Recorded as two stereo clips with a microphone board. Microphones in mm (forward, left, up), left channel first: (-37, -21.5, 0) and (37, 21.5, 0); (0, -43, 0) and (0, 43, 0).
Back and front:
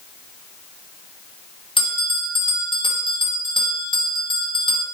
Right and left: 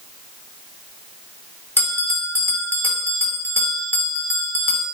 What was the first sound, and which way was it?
A bell, 155° right.